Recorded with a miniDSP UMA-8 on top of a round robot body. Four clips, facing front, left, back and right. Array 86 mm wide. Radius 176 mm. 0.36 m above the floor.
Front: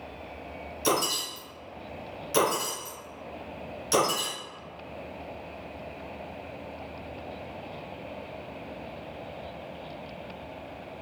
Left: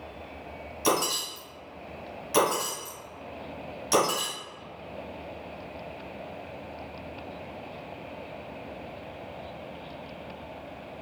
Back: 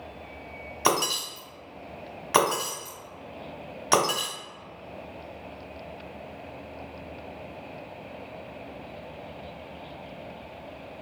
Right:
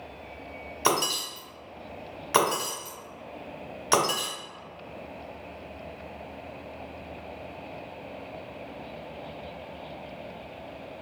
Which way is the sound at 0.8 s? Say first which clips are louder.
Even, back 2 dB; 150° right.